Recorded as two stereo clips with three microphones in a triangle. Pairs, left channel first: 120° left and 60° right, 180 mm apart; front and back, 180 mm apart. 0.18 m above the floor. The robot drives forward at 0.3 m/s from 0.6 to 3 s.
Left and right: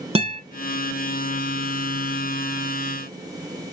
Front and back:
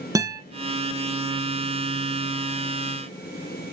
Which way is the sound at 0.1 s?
115° right.